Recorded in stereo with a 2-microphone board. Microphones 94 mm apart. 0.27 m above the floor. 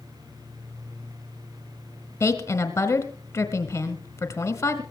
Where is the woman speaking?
30° left (ahead or behind), 1.2 m.